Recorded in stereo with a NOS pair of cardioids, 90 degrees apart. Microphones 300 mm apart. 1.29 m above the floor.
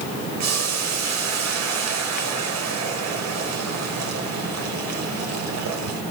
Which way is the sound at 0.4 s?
60° right.